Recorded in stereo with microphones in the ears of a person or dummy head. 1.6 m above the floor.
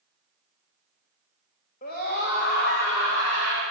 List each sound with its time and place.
1.8 s a scream: 45° left (ahead or behind), 2.5 m; by 3.6 s 75° left (ahead or behind), 1.9 m